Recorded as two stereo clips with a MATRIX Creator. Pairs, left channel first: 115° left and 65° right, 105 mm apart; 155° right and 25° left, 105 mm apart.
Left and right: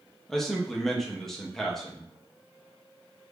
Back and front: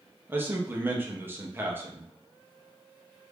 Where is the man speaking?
30° left, 0.6 m.